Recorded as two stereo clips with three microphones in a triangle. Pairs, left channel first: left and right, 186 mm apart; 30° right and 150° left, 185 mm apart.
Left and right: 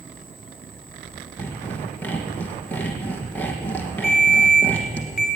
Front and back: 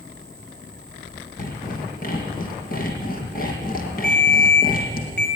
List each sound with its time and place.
1.4 s sawing: 10° left, 3.5 m
4.0 s a ringtone: straight ahead, 5 m